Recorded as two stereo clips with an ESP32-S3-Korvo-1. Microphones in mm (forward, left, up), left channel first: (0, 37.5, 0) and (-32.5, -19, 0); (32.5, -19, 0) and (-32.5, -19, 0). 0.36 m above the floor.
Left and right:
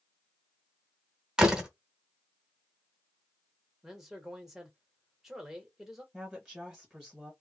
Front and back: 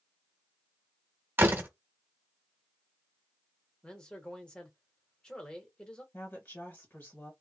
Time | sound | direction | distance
1.4 | a door slam | 170° left | 1.0 m
3.8 | a man speaking | 45° right | 1.0 m
6.1 | a woman speaking | 40° right | 1.2 m